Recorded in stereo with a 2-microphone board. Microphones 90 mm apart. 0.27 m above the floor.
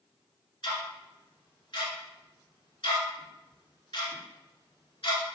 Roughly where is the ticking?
Left.